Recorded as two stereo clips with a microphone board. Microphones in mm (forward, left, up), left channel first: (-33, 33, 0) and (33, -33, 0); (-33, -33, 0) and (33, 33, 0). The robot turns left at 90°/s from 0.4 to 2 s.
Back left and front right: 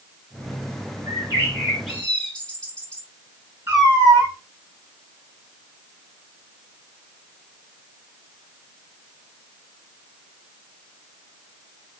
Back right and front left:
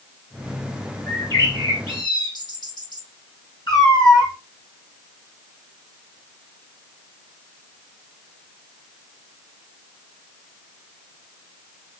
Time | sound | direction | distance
1.1 | a bird | 65° right | 2.5 m
3.7 | a cat meowing | 105° right | 3 m